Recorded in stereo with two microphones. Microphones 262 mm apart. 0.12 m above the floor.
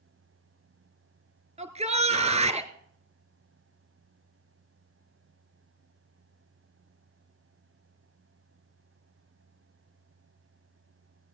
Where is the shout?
25° right (ahead or behind), 1.6 m.